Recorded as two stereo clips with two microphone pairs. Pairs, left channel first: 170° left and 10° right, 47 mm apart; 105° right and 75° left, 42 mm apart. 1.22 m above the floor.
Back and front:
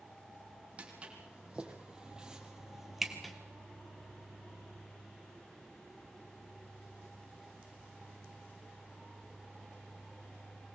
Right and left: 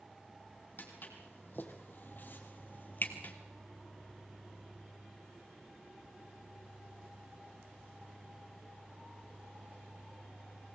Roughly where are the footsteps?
Ahead right.